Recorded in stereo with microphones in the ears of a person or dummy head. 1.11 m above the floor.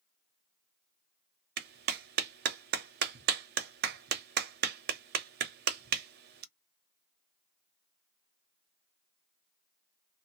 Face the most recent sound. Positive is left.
turn(degrees=-55)  # may be behind; listen again after turning